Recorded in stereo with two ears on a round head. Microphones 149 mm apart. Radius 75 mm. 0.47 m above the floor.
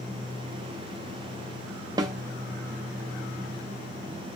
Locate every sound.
2.0 s a snare drum: 25° right (ahead or behind), 0.5 m